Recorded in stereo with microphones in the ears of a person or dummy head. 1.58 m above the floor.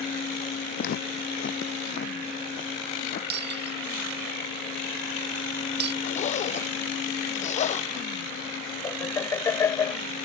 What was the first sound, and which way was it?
Footsteps, 55° left (ahead or behind).